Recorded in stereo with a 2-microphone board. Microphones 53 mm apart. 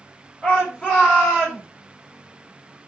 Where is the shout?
25° left (ahead or behind), 5.5 m; by 1.6 s 20° left (ahead or behind), 5 m.